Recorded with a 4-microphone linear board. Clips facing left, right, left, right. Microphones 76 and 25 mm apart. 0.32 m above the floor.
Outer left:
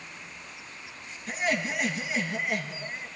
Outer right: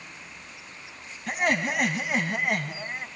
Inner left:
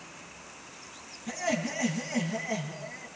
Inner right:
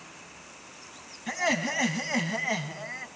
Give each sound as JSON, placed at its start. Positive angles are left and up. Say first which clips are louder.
{"t": 1.3, "sound": "laughter", "louder": "outer right 3 dB, inner right 4 dB", "side_deg": -60, "distance_m": 2.5}